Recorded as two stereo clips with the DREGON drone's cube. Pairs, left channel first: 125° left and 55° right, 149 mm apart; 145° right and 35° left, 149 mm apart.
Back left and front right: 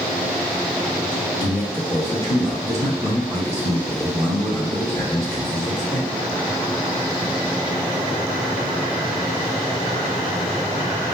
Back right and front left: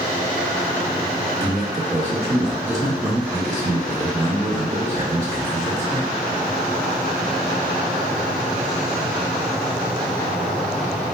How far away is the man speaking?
About 1.4 m.